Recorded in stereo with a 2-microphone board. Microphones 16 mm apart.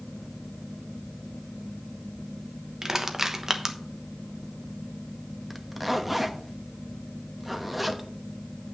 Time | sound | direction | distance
2.8 | crushing | 35° right (ahead or behind) | 1.0 m
5.5 | a zipper | 10° right (ahead or behind) | 0.9 m